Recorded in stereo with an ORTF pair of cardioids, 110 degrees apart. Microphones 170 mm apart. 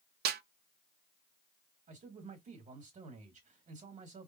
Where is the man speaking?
45° right, 1.7 m.